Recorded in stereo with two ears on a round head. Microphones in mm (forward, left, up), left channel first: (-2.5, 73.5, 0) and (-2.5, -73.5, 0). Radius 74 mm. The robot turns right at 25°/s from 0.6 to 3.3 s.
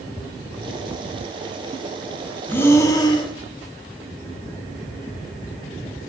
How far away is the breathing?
About 1.2 m.